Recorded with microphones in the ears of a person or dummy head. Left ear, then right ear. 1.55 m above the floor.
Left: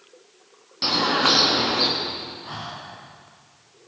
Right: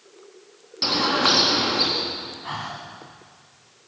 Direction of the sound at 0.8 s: Centre (ahead or behind).